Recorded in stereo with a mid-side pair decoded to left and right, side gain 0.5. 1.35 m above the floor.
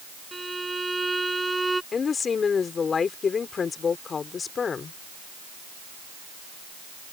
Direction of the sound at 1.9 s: 40° left.